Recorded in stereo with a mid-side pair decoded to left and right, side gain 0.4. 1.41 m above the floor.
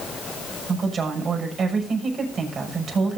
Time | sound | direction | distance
0.7 | a woman speaking | 55° right | 6.5 m